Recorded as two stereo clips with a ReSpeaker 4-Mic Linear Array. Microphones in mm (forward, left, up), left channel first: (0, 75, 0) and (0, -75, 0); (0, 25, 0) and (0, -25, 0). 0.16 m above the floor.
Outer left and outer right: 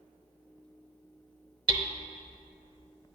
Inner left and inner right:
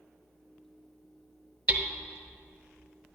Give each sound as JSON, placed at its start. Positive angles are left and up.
{"t": 1.7, "sound": "hammering", "side_deg": -25, "distance_m": 0.6}